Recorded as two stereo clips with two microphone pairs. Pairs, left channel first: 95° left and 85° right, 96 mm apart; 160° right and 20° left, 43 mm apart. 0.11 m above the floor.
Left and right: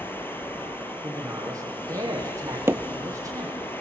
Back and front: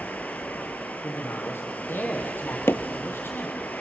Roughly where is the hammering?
Behind right.